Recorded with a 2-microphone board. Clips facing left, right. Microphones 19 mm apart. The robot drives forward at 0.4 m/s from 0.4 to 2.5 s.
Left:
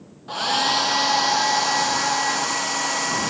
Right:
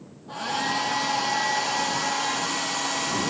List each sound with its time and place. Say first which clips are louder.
0.3 s a hair dryer: left 6 dB; 55° left (ahead or behind), 1.0 m; by 3.3 s 30° left (ahead or behind), 1.6 m